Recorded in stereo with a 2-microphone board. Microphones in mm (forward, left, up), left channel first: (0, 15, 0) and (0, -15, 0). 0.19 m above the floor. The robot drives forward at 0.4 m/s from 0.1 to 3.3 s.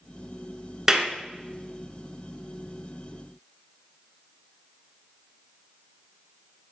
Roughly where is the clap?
Centre.